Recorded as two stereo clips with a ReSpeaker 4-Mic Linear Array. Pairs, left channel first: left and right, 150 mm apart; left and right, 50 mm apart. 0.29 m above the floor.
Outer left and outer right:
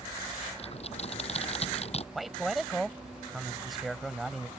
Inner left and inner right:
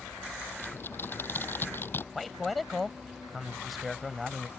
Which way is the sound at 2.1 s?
Centre (ahead or behind).